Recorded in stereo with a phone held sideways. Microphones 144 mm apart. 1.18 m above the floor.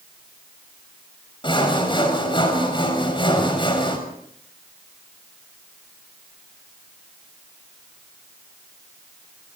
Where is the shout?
I don't hear a shout.